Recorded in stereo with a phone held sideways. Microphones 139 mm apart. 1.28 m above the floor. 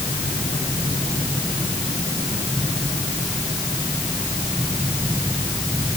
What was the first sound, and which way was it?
Only background noise.